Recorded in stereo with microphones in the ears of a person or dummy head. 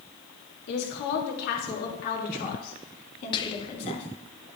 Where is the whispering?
20° left (ahead or behind), 0.6 m.